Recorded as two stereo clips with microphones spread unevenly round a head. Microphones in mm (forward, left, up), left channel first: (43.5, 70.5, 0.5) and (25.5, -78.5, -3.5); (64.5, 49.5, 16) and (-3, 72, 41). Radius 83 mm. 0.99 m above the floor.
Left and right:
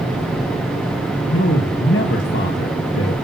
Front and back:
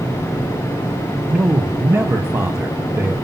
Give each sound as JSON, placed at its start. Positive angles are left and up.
{"t": 1.3, "sound": "a man speaking", "azimuth_deg": 95, "distance_m": 1.0}